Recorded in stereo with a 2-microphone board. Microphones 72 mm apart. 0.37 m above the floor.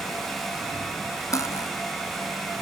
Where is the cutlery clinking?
45° left (ahead or behind).